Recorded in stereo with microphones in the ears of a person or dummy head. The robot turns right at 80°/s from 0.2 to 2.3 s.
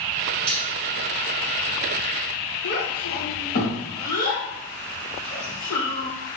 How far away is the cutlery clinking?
About 2.0 m.